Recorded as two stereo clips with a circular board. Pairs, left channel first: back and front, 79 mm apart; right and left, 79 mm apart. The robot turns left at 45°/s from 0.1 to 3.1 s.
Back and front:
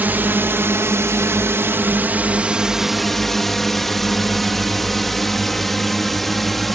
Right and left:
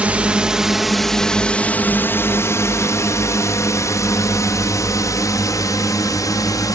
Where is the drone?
35° left; by 6.7 s 95° right.